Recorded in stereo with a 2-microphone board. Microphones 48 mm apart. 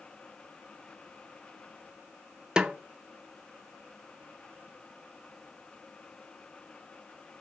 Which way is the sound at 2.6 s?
20° right (ahead or behind).